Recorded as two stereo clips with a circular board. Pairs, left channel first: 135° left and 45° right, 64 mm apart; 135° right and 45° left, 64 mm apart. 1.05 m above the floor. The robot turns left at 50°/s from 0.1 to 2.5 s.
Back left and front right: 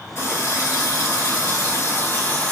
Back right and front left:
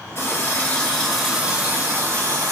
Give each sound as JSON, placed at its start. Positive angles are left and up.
{"t": 0.1, "sound": "a running tap", "azimuth_deg": -175, "distance_m": 2.5}